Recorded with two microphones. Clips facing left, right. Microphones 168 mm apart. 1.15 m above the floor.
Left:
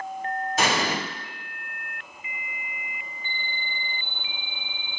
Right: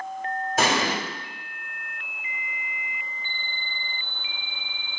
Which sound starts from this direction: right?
An explosion, at 0.6 s.